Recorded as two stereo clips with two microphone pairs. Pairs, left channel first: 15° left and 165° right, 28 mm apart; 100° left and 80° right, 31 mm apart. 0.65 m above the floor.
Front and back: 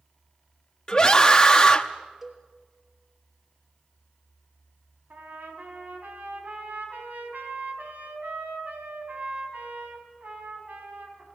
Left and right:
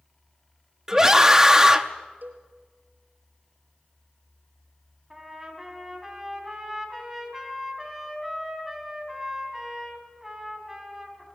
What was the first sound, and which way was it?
A scream, 35° right.